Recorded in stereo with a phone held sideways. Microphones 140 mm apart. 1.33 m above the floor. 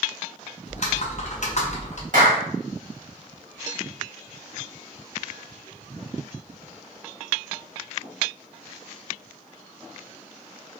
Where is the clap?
65° right (ahead or behind), 1.4 m.